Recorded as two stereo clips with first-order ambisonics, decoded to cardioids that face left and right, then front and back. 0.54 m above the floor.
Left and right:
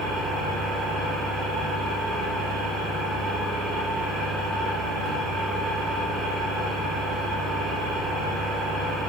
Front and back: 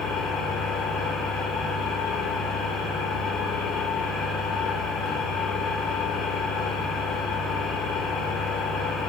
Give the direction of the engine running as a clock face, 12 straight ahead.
1 o'clock.